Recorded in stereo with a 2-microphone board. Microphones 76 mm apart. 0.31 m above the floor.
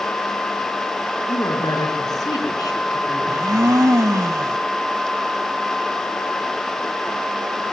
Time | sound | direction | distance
1.3 | a woman speaking | 60° left (ahead or behind) | 5 m
3.3 | a blender | 50° right (ahead or behind) | 0.9 m